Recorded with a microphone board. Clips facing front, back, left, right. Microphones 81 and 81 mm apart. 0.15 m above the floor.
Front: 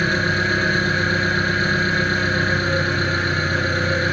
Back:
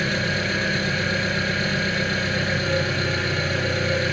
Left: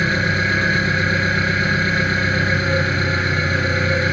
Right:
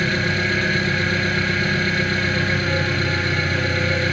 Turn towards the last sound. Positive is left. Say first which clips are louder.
# front 4 dB, left 2 dB
turn(degrees=35)